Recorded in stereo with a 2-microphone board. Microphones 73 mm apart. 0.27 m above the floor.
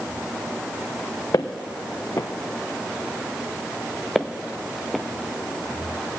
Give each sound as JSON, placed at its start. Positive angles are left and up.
{"t": 1.3, "sound": "footsteps", "side_deg": 55, "distance_m": 1.0}
{"t": 4.2, "sound": "footsteps", "side_deg": 0, "distance_m": 0.9}